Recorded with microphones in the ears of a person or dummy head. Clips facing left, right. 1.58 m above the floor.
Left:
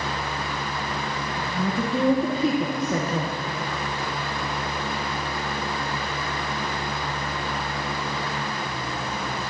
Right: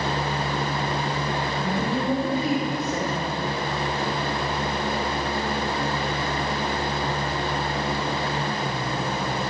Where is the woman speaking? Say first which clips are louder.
Even; 80° left, 2.0 m; by 3.4 s 55° left (ahead or behind), 0.9 m.